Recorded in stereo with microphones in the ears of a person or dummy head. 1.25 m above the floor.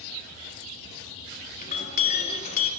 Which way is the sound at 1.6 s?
50° left (ahead or behind).